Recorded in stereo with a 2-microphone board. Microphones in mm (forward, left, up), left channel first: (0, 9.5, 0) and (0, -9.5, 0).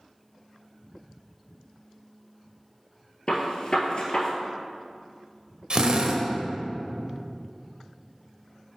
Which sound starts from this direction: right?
A drill, at 5.7 s.